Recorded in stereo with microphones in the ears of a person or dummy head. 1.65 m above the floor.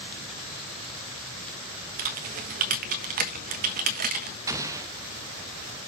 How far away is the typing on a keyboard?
About 1.4 m.